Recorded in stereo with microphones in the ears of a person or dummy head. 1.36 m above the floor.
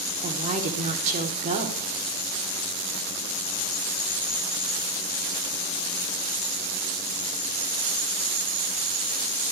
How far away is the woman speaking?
About 3.5 m.